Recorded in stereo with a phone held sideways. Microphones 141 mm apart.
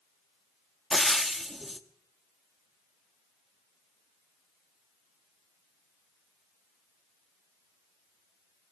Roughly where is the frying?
Centre.